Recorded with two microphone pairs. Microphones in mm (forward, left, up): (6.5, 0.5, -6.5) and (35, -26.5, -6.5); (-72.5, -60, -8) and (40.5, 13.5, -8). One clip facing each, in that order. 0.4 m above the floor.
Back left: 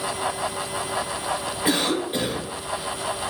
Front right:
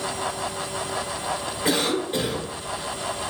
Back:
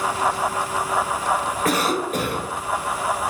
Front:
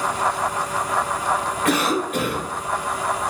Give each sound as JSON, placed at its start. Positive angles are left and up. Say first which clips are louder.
{"t": 1.6, "sound": "a cough", "louder": "even, front 1 dB", "azimuth_deg": -150, "distance_m": 2.0}